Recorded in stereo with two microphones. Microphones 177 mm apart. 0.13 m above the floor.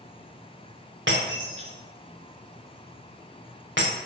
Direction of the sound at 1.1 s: 85° right.